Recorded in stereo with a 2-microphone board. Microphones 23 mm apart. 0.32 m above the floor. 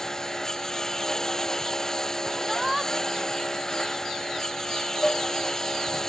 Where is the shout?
5° right (ahead or behind).